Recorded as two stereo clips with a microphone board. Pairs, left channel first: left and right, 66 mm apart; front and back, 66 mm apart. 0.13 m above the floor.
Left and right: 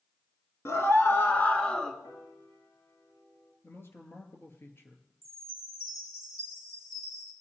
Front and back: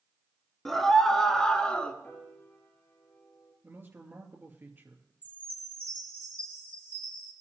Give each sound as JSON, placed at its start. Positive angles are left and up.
{"t": 0.7, "sound": "a scream", "azimuth_deg": 85, "distance_m": 2.0}
{"t": 2.0, "sound": "a piano", "azimuth_deg": 60, "distance_m": 7.0}
{"t": 3.6, "sound": "a man speaking", "azimuth_deg": 135, "distance_m": 2.5}
{"t": 5.2, "sound": "a chime", "azimuth_deg": 65, "distance_m": 4.5}